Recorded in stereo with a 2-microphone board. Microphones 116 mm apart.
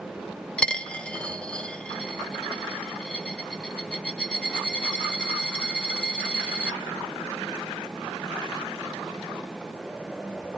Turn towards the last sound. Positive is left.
turn(degrees=10)  # may be behind; listen again after turning